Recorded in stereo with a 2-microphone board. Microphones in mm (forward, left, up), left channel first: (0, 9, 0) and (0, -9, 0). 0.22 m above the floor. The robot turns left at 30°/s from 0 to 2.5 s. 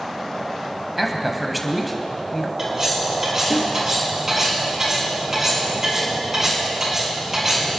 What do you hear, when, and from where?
1.0 s a man speaking: 5° right (ahead or behind), 1.1 m; by 2.5 s 10° left (ahead or behind), 1.1 m
2.6 s cutlery clinking: 35° right (ahead or behind), 3.5 m